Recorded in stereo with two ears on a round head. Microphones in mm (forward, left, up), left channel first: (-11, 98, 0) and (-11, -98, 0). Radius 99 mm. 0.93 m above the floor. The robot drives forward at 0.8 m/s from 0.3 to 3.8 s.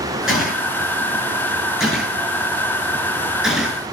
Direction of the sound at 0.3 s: 5° right (ahead or behind).